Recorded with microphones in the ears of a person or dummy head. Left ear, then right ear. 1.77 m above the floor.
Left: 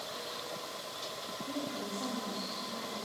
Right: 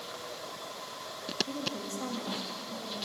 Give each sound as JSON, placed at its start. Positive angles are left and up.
{"t": 1.5, "sound": "a woman speaking", "side_deg": -75, "distance_m": 2.0}